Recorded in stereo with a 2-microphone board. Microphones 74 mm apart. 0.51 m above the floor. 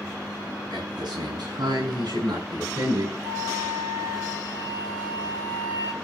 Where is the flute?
75° right (ahead or behind), 9 m.